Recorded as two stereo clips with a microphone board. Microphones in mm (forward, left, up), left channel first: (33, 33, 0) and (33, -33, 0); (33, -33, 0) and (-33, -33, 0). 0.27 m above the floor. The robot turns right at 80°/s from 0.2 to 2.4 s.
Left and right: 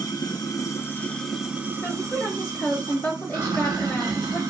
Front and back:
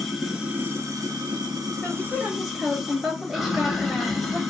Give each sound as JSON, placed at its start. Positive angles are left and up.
{"t": 0.0, "sound": "running water", "azimuth_deg": 90, "distance_m": 1.1}
{"t": 1.8, "sound": "a woman speaking", "azimuth_deg": 55, "distance_m": 0.9}